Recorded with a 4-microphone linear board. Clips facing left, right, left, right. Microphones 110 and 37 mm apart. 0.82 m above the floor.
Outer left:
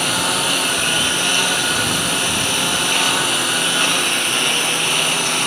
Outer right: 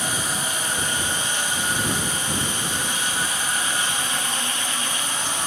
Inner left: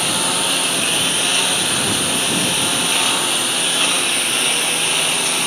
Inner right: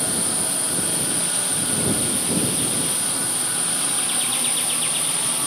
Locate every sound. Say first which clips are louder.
0.0 s a lawn mower: outer left 7 dB, inner left 8 dB; 70° left (ahead or behind)